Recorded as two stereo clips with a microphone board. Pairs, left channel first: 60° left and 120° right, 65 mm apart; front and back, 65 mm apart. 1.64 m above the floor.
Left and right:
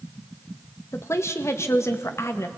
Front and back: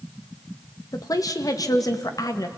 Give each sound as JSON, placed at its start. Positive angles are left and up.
{"t": 0.9, "sound": "a woman speaking", "azimuth_deg": 15, "distance_m": 2.0}